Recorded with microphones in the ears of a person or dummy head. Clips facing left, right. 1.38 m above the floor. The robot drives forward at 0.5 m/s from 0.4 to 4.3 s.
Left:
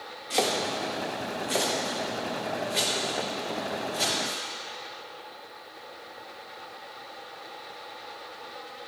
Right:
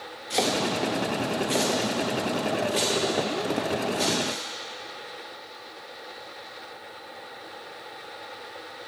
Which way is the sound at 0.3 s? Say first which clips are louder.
Right 2 dB; centre (ahead or behind).